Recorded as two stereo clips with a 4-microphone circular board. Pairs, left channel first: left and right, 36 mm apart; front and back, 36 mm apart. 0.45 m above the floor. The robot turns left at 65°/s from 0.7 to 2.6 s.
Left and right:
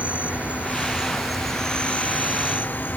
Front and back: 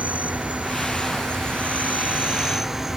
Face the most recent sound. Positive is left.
turn(degrees=100)